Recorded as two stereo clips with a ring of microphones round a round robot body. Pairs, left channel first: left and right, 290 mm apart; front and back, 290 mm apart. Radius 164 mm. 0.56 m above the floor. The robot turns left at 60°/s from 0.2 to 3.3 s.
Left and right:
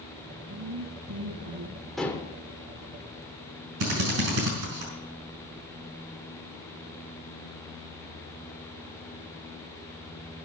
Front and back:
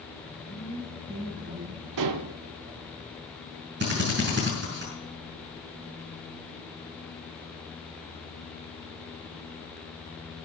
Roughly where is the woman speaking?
Ahead right.